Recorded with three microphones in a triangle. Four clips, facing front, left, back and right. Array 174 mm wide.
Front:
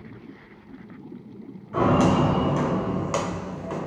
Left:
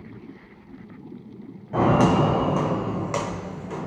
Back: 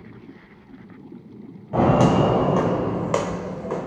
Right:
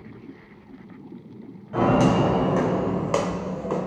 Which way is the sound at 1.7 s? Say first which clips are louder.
Even, back 3 dB; 165° left.